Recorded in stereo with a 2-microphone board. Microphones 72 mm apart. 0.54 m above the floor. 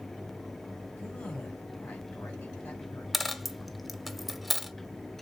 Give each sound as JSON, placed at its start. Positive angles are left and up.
{"t": 1.0, "sound": "a man speaking", "side_deg": 15, "distance_m": 3.0}
{"t": 3.1, "sound": "a dropped coin", "side_deg": 0, "distance_m": 0.5}